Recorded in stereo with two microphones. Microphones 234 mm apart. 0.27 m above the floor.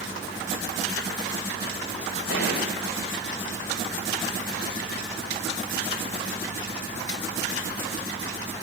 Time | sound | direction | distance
2.3 | a gunshot | 65° left (ahead or behind) | 7 m